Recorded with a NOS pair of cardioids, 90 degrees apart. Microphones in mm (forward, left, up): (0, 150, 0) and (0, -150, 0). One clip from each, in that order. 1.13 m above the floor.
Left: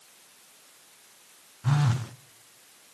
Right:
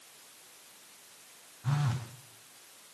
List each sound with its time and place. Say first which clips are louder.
1.6 s a phone buzzing: left 6 dB; 30° left, 0.5 m